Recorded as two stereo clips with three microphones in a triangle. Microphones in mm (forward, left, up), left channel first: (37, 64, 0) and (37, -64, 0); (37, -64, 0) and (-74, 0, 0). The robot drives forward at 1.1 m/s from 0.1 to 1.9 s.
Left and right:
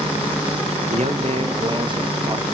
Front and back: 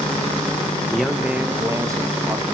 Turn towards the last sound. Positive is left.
turn(degrees=-145)